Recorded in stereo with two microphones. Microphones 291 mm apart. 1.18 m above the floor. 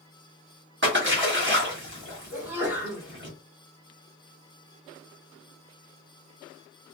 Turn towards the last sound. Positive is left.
turn(degrees=-5)  # may be behind; listen again after turning